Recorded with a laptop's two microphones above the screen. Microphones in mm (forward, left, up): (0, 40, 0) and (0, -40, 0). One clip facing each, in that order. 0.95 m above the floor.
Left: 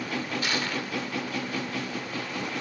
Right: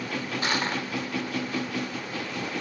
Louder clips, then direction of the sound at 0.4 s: Right 2 dB; 35° right (ahead or behind).